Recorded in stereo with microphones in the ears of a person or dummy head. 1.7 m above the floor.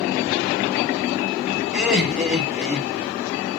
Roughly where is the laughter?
Centre.